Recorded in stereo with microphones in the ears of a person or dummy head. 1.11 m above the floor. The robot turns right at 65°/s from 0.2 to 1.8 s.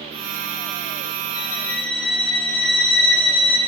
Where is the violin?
20° left (ahead or behind), 0.5 m; by 3.6 s 5° left (ahead or behind), 0.5 m.